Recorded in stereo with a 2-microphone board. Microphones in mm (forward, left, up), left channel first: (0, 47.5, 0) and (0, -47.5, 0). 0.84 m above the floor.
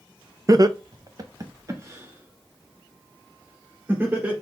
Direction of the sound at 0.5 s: 35° right (ahead or behind).